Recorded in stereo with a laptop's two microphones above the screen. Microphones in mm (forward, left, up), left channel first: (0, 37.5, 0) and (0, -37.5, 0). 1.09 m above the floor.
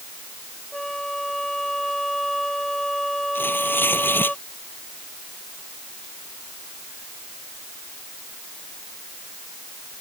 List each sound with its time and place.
0.7 s a flute: 5° left (ahead or behind)
3.4 s tearing paper: 30° left (ahead or behind)